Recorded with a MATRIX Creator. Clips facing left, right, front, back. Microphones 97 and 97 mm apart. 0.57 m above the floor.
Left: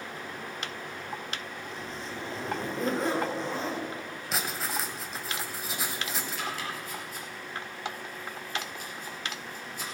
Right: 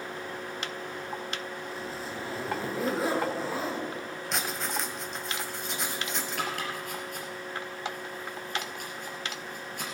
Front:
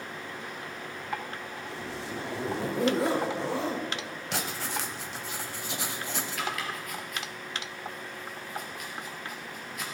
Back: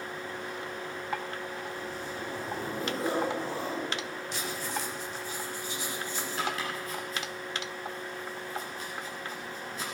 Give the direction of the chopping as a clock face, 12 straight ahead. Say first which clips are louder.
Right 2 dB, back 3 dB; 4 o'clock.